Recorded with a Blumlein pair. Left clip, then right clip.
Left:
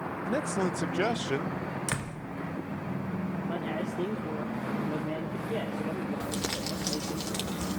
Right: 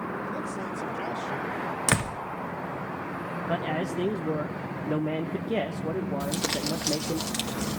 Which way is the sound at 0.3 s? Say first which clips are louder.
Left 3 dB; 30° left.